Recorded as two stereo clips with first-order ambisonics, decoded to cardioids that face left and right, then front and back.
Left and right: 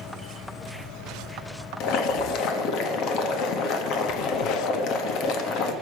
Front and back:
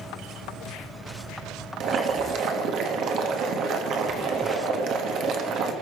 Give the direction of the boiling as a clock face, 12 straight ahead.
8 o'clock.